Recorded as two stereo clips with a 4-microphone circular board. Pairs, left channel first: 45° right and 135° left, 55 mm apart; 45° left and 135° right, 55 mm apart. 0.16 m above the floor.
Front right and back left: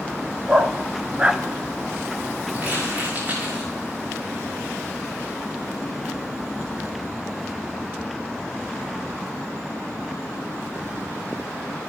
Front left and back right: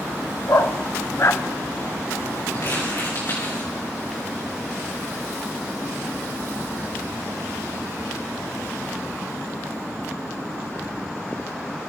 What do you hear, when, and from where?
0.5 s a dog barking: 70° left, 0.6 m
2.5 s crumpling: 75° left, 9.5 m